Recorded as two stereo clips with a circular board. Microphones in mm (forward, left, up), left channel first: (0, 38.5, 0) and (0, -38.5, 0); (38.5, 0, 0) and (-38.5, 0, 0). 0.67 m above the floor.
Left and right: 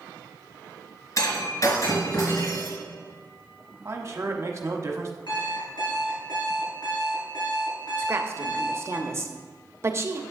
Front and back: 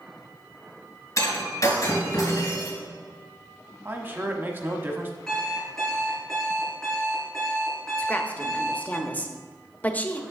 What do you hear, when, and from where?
1.2 s breaking glass: 45° left, 3 m
3.9 s a man speaking: 130° right, 1.1 m
5.3 s an alarm clock: 85° left, 4 m
8.0 s a woman speaking: 60° right, 0.8 m